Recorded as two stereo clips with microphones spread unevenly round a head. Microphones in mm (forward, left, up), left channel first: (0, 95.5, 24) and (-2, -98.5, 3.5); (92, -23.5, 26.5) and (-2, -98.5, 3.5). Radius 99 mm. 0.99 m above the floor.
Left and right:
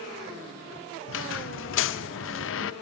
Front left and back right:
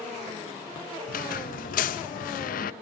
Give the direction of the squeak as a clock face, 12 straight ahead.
10 o'clock.